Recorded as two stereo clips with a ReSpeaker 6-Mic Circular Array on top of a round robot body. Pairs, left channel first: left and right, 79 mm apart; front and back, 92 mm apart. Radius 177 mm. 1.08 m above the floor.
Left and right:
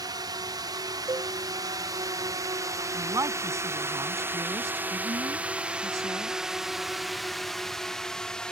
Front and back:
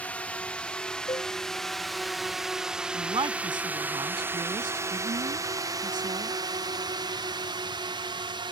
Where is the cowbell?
45° right.